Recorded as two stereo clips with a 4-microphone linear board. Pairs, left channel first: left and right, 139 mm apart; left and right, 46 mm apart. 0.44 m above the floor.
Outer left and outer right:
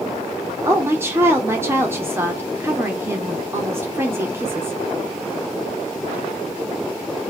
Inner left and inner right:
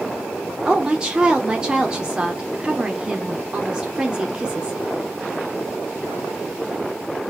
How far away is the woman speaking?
About 0.8 m.